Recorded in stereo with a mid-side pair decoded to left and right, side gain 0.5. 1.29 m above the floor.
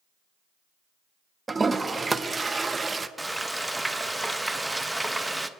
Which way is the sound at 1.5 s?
20° right.